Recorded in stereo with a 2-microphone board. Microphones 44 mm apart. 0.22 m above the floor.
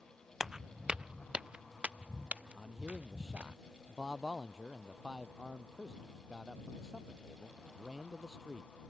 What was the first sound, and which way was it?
Footsteps, 10° right (ahead or behind).